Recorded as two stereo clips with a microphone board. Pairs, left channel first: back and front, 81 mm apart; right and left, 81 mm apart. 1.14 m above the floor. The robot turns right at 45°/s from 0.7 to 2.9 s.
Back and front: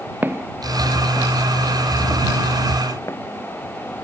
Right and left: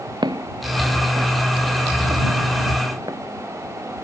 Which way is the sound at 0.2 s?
65° left.